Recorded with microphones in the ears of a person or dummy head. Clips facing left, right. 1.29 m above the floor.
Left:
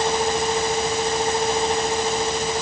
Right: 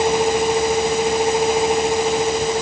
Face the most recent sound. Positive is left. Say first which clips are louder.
# right 5 dB
turn(degrees=-10)  # may be behind; listen again after turning